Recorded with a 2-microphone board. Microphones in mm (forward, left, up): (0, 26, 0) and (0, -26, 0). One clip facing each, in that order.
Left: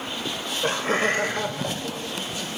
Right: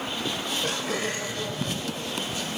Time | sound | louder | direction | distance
0.2 | laughter | left 4 dB | 10° left (ahead or behind) | 1.2 m